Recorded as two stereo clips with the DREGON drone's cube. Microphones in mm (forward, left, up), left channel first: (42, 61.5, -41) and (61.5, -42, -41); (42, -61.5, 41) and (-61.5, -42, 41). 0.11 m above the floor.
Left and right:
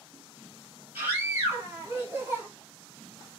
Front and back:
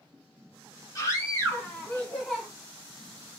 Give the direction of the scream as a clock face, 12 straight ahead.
1 o'clock.